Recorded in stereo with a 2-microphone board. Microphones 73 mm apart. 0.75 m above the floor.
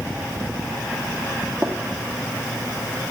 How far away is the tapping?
About 1.3 m.